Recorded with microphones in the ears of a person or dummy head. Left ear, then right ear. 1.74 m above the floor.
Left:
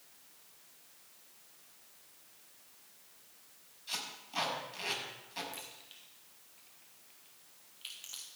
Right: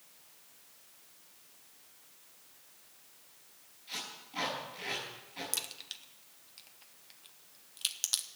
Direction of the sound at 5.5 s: 45° right (ahead or behind).